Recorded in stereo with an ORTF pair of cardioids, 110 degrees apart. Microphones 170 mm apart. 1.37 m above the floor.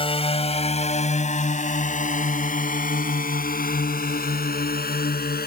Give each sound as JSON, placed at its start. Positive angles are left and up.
{"t": 0.0, "sound": "a drone", "azimuth_deg": 30}